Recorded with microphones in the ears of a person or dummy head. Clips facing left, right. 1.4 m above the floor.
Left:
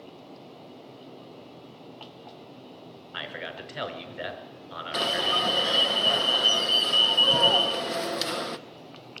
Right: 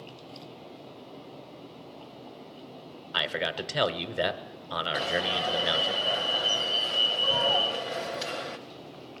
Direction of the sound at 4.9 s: 55° left (ahead or behind).